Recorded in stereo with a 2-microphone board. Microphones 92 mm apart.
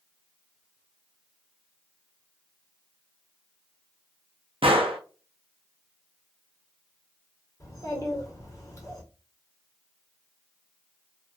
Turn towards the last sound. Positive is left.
turn(degrees=40)  # may be behind; listen again after turning